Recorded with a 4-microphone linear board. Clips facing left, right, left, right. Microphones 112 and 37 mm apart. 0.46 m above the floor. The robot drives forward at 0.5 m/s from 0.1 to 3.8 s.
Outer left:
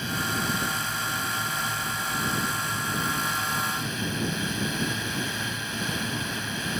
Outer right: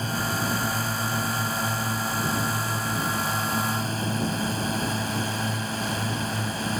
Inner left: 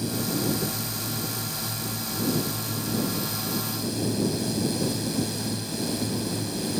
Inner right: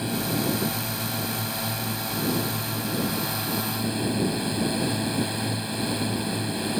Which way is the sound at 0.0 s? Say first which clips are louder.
Outer right 2 dB, inner right 1 dB; 35° right (ahead or behind).